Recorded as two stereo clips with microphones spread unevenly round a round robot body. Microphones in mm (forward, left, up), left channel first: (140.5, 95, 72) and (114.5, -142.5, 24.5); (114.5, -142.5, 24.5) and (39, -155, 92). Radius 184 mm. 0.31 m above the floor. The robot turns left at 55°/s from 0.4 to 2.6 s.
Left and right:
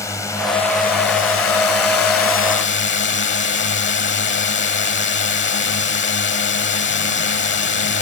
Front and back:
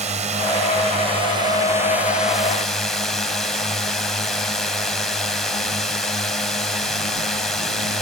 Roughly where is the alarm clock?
I don't hear an alarm clock.